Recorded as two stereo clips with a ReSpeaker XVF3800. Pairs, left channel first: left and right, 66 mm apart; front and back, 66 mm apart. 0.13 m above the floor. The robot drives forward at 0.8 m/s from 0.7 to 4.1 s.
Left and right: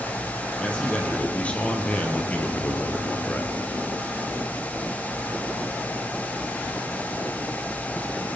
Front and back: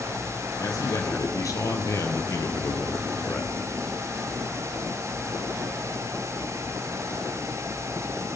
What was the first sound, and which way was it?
A man speaking, 15° left.